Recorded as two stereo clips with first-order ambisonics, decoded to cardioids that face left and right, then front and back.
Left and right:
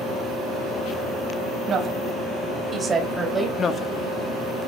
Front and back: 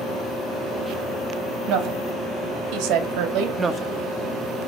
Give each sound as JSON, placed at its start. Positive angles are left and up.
{"t": 1.7, "sound": "a woman speaking", "azimuth_deg": -155, "distance_m": 3.0}
{"t": 3.6, "sound": "a woman speaking", "azimuth_deg": 125, "distance_m": 0.6}